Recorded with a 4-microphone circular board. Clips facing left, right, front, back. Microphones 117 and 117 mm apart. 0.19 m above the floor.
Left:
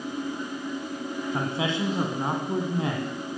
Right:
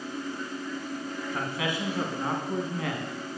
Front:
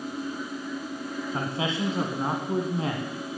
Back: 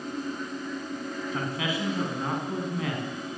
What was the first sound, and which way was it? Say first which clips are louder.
A man speaking: left 4 dB, front 2 dB; 40° left.